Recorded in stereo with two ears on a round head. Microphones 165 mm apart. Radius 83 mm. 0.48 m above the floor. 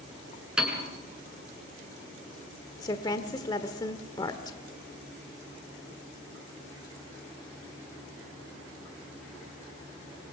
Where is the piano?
5° right (ahead or behind), 5 m.